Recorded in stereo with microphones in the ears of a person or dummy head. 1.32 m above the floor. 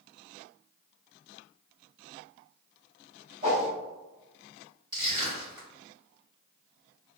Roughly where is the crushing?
Right.